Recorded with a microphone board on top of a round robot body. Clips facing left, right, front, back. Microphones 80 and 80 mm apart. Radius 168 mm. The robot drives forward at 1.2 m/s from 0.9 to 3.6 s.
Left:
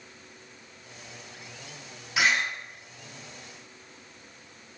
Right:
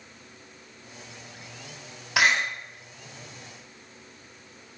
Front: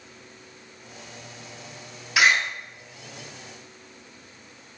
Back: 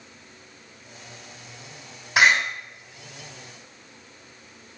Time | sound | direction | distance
2.2 | a door slam | 115° right | 7 m